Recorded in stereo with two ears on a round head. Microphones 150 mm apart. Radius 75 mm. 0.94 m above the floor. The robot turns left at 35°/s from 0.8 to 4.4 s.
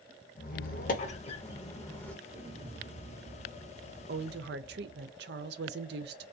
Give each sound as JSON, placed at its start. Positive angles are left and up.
{"t": 0.4, "sound": "a squeak", "side_deg": 55, "distance_m": 0.6}
{"t": 2.2, "sound": "an explosion", "azimuth_deg": -100, "distance_m": 0.7}
{"t": 4.1, "sound": "a woman speaking", "side_deg": -60, "distance_m": 0.5}